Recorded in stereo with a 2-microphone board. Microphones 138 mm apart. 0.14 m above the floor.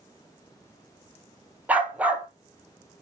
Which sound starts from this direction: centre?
A dog barking, at 1.7 s.